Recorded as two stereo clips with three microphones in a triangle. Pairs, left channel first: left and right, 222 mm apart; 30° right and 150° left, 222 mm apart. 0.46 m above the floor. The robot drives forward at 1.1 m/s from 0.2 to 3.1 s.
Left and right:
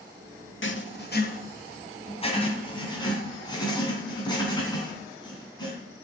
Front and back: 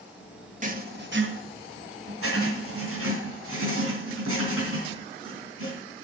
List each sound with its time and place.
0.6 s writing: 100° left, 1.2 m; by 5.8 s 160° left, 3 m